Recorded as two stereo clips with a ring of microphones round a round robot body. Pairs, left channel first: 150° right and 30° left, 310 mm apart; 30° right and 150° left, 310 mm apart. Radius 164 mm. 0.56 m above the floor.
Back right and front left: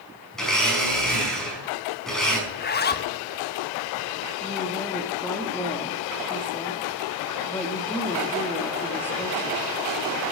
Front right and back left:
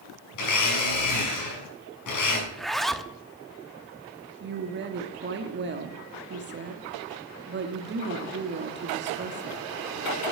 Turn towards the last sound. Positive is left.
turn(degrees=130)